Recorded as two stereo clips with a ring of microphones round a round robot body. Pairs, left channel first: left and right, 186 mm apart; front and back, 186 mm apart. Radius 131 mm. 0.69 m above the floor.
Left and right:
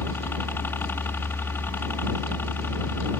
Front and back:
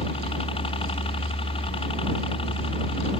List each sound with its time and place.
0.0 s a helicopter: 20° left